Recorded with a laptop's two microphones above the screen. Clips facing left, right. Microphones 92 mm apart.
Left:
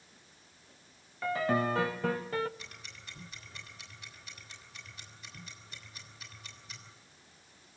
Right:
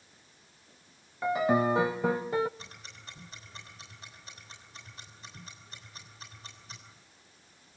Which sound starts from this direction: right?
Ticking, at 2.6 s.